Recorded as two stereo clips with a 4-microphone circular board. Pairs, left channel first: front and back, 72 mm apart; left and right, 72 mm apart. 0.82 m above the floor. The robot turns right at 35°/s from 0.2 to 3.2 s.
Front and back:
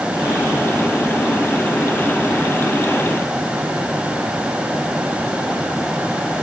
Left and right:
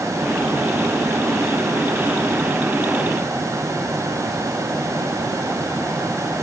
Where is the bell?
I don't hear a bell.